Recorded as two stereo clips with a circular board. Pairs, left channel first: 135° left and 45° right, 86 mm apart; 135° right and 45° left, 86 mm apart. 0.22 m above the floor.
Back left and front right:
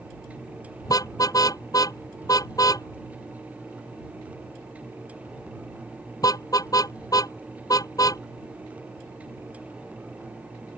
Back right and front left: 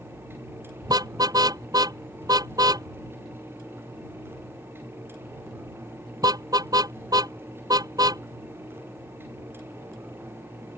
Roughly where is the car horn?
Left.